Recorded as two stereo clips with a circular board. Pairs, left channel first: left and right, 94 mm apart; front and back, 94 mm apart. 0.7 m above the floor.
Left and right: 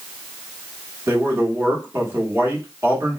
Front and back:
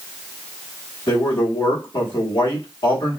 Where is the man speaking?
30° right, 1.2 m.